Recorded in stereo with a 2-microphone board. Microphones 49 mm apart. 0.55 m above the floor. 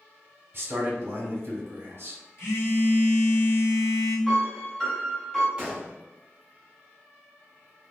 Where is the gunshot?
20° right (ahead or behind), 1.0 m.